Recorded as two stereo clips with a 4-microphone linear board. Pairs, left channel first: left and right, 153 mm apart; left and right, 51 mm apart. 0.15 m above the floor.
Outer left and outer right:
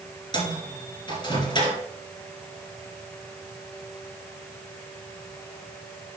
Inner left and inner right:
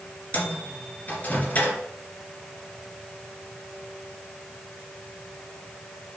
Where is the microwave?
35° left (ahead or behind), 2.5 m.